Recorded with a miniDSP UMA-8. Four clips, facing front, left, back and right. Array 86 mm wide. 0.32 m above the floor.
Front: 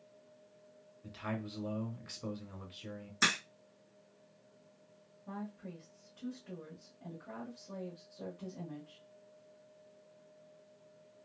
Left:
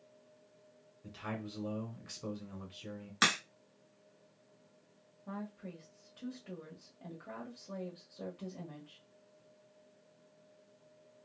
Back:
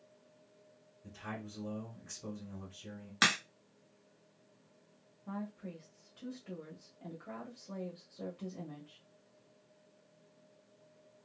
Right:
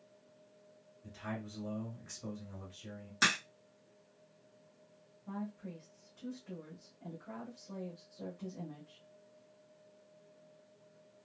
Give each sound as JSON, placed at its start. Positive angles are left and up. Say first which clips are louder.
{"t": 1.0, "sound": "a man speaking", "louder": "left 1 dB, front 4 dB", "azimuth_deg": 30, "distance_m": 1.4}
{"t": 3.2, "sound": "a crack", "louder": "left 1 dB, back 2 dB", "azimuth_deg": 155, "distance_m": 2.0}
{"t": 5.3, "sound": "a woman speaking", "louder": "right 1 dB, back 2 dB", "azimuth_deg": 115, "distance_m": 1.3}